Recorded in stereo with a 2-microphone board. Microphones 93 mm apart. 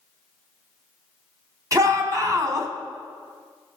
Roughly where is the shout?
Right.